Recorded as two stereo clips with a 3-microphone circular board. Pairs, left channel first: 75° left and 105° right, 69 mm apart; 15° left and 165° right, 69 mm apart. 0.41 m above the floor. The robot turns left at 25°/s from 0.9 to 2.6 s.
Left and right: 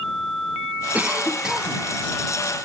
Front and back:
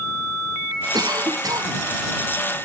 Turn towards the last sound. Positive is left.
turn(degrees=150)